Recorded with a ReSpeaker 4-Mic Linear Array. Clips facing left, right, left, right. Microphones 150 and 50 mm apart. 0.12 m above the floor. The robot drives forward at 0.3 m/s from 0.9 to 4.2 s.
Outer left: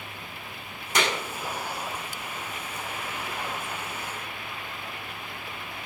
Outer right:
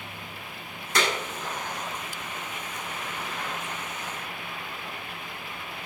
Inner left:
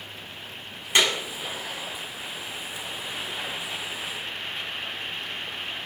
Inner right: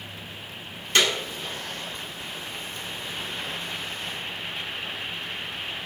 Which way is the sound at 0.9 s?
20° left (ahead or behind).